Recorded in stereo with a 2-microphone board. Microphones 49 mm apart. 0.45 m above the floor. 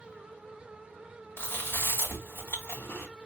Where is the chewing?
60° left (ahead or behind), 3 m.